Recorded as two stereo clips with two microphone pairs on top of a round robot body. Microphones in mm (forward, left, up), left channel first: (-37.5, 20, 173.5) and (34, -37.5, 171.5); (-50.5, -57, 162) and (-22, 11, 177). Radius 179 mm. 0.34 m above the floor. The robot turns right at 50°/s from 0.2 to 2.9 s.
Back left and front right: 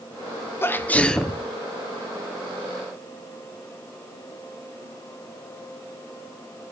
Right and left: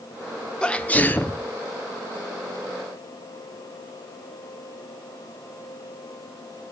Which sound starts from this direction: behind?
A sneeze, at 0.6 s.